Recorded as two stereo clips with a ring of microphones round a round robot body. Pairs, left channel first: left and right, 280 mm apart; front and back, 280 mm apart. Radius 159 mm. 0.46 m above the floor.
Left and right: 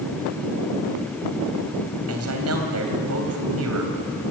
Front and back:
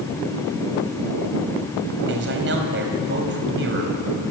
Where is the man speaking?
130° right, 3.5 m.